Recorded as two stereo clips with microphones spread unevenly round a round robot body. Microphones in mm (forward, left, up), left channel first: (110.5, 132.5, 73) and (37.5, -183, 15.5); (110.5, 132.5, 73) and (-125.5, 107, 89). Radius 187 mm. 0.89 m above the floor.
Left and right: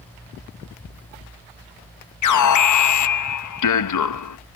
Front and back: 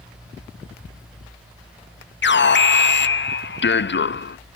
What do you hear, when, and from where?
2.2 s an alarm: 40° left